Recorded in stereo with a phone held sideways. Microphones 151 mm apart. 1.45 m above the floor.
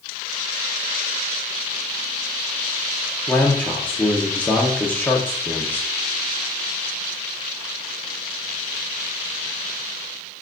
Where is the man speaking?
10° left (ahead or behind), 1.1 m.